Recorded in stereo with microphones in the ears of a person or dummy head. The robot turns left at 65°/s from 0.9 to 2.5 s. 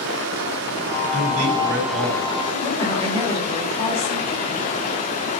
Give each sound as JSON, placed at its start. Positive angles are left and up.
{"t": 0.0, "sound": "running water", "azimuth_deg": -105, "distance_m": 1.2}
{"t": 1.1, "sound": "a man speaking", "azimuth_deg": -45, "distance_m": 4.5}
{"t": 2.5, "sound": "a woman speaking", "side_deg": 10, "distance_m": 5.5}